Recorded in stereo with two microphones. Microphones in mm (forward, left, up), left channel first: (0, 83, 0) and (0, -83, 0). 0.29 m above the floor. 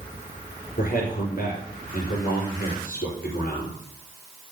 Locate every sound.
0.8 s a man speaking: 55° left (ahead or behind), 5 m